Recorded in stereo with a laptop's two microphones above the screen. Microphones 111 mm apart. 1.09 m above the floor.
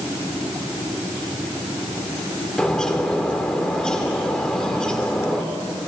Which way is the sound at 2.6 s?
5° left (ahead or behind).